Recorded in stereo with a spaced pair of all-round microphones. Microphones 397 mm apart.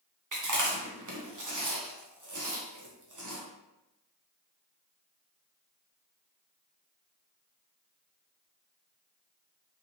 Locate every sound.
0.3 s chewing: 50° right (ahead or behind), 0.7 m